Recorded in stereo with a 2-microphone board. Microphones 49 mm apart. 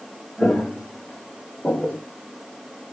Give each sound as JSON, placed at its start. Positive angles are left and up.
{"t": 0.4, "sound": "footsteps", "side_deg": 20, "distance_m": 1.6}